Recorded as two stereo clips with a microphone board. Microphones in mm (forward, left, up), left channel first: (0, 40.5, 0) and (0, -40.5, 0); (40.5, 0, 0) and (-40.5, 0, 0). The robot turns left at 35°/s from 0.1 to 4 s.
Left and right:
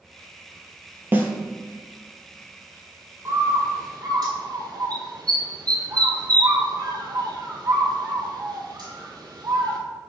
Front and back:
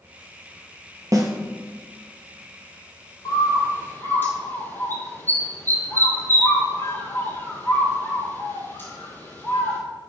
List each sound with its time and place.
1.1 s a snare drum: 150° right, 1.0 m; by 1.3 s 155° right, 1.0 m
3.2 s a bird: 35° right, 1.4 m; by 9.8 s 60° right, 1.4 m